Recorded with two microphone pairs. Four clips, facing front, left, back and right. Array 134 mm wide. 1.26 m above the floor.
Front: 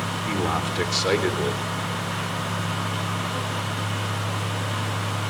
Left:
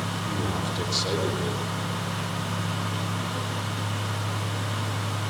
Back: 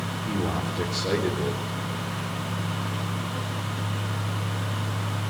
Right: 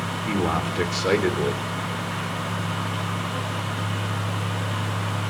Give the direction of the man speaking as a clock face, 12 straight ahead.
1 o'clock.